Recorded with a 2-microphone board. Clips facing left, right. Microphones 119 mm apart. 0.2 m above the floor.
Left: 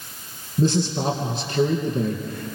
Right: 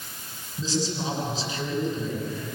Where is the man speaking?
60° left (ahead or behind), 3 m.